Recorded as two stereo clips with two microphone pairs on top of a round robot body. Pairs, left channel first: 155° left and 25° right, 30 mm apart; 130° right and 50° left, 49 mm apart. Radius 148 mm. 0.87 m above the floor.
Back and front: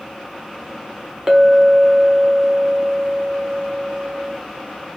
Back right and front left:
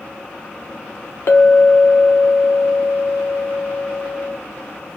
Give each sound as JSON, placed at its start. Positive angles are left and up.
{"t": 1.3, "sound": "a clink", "azimuth_deg": -90, "distance_m": 0.6}